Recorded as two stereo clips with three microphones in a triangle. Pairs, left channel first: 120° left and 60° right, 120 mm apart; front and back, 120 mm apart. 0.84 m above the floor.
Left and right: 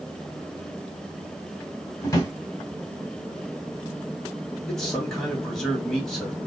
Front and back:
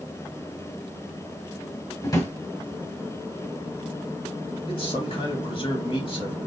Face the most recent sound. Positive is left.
turn(degrees=35)